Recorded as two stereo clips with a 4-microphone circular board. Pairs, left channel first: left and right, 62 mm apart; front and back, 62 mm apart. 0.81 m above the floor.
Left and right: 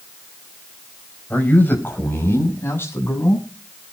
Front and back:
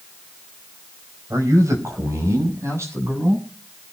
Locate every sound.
1.3 s a man speaking: 150° left, 4.5 m; by 3.5 s 135° left, 7 m